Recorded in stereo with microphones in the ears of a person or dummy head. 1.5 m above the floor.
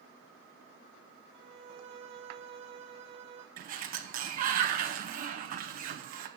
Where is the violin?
30° right (ahead or behind), 1.5 m.